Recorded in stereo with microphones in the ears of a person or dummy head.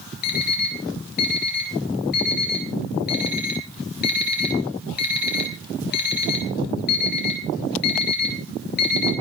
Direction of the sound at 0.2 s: 55° left (ahead or behind).